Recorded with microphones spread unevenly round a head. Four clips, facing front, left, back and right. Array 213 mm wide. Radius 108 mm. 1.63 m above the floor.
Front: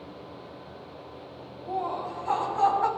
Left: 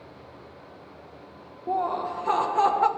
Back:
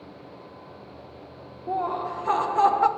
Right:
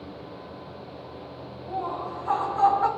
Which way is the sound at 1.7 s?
120° left.